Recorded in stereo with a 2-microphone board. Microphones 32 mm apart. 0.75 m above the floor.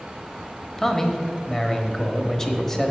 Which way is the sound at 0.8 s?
15° left (ahead or behind).